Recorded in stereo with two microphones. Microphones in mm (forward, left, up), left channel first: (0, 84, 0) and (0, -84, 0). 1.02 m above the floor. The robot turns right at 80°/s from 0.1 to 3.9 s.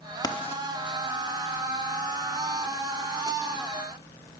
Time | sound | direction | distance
0.2 | writing | 25° left (ahead or behind) | 0.6 m